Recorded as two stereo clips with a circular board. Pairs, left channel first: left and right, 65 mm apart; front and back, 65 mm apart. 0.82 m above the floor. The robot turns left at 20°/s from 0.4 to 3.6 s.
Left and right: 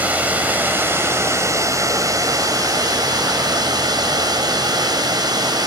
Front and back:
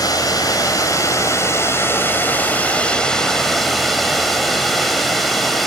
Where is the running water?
25° right, 4 m; by 5.7 s 90° right, 4 m.